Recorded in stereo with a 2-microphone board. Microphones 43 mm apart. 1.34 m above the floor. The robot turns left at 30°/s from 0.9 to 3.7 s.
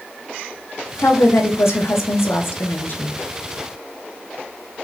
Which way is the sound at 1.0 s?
110° left.